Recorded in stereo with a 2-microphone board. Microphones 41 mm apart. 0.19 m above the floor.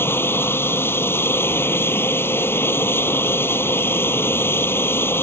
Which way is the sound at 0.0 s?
70° left (ahead or behind).